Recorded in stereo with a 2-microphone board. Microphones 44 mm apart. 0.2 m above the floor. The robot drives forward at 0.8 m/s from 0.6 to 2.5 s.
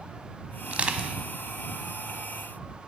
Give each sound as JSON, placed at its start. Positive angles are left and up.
{"t": 0.7, "sound": "crushing", "side_deg": -25, "distance_m": 0.6}